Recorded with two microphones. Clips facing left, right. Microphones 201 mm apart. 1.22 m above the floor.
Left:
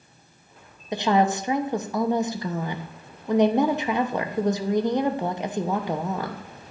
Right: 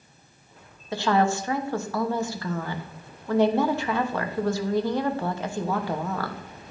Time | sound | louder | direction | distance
0.9 | a woman speaking | left 1 dB | 20° left (ahead or behind) | 0.8 m